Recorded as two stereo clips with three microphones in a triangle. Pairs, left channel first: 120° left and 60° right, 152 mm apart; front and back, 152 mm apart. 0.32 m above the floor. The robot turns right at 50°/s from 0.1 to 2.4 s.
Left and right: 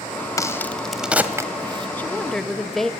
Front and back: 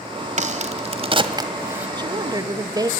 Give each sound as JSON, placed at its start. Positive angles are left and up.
{"t": 0.4, "sound": "a crack", "azimuth_deg": 180, "distance_m": 1.5}
{"t": 2.0, "sound": "a woman speaking", "azimuth_deg": -175, "distance_m": 1.4}